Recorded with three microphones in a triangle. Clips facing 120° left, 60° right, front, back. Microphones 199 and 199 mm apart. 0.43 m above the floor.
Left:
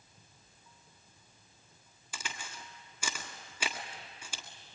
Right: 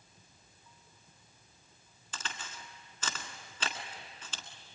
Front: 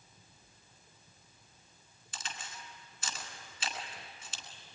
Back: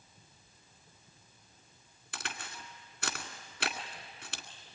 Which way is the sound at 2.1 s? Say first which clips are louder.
Even, back 2 dB; 160° right.